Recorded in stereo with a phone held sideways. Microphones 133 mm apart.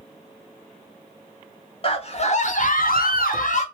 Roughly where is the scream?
Left.